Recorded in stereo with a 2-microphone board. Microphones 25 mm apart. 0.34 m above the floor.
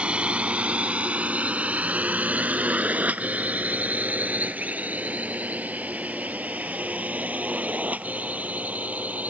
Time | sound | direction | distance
0.0 | a drone | 50° right (ahead or behind) | ?